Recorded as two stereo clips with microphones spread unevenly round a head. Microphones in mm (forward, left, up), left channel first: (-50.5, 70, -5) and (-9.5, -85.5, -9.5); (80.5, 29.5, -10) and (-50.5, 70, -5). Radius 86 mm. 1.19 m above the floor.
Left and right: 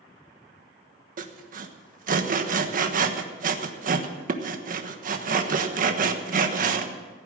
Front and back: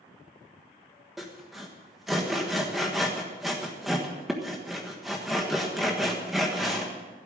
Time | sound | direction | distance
1.2 | sawing | 110° right | 1.3 m